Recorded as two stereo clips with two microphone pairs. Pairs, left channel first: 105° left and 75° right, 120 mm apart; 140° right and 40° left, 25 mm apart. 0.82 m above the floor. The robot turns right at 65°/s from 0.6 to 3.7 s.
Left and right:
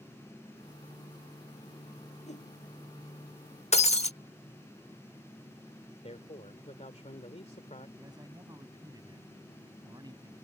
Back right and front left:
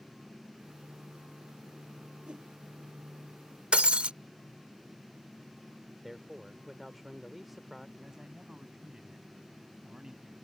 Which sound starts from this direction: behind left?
A man speaking, at 6.0 s.